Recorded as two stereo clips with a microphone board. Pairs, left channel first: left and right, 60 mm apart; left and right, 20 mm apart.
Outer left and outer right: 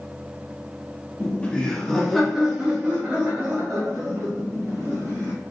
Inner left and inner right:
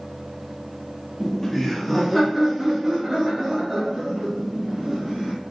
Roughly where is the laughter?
Left.